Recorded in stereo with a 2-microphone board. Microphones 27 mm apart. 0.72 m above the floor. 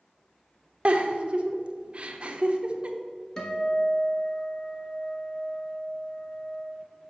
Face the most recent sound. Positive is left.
turn(degrees=30)  # may be behind; listen again after turning